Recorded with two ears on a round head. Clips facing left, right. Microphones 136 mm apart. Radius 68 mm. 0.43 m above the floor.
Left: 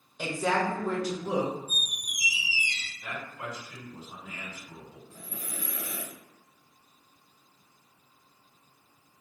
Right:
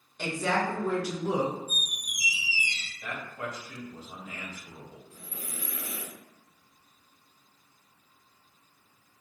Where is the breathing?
85° left, 0.6 m.